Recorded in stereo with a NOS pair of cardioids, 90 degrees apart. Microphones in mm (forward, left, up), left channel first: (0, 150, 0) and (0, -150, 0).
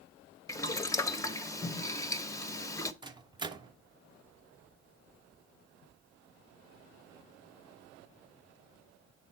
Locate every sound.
0.5 s boiling: 10° left, 0.6 m
3.0 s a microwave: 15° right, 0.5 m